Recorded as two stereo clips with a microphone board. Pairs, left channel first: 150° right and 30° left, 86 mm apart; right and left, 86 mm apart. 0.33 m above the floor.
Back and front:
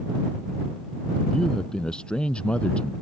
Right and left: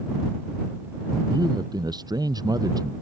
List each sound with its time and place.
1.3 s a man speaking: 130° left